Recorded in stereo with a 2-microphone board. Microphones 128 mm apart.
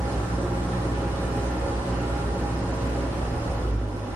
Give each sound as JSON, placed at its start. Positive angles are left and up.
{"t": 0.0, "sound": "an engine running", "side_deg": -15, "distance_m": 0.8}